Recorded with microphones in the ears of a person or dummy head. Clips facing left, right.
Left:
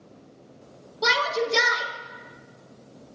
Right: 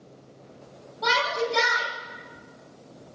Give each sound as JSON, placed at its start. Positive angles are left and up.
{"t": 1.0, "sound": "a shout", "side_deg": 60, "distance_m": 4.5}